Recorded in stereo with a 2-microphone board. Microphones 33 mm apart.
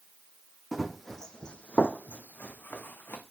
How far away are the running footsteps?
About 1.0 m.